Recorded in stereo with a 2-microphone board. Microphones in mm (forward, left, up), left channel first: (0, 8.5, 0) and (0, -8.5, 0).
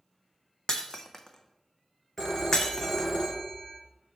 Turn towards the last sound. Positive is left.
turn(degrees=15)  # may be behind; listen again after turning